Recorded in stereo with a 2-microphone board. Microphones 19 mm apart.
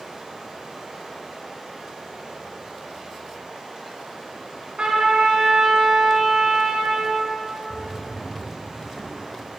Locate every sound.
0.0 s running water: 40° right (ahead or behind), 3 m
4.8 s a trumpet: 60° right (ahead or behind), 2.5 m
7.7 s a drawer: 15° left (ahead or behind), 1.8 m